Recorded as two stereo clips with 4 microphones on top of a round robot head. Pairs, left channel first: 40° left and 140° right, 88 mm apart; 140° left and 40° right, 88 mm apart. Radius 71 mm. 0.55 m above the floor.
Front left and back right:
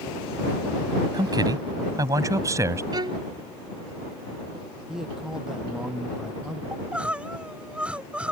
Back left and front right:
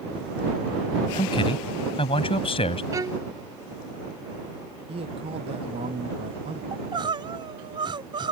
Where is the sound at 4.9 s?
60° right.